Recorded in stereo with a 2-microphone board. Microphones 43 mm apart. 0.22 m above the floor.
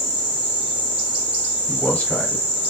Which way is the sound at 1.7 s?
30° left (ahead or behind).